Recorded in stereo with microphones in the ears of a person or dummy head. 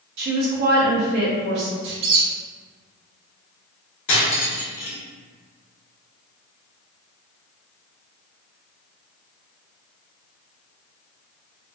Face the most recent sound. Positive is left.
turn(degrees=30)  # may be behind; listen again after turning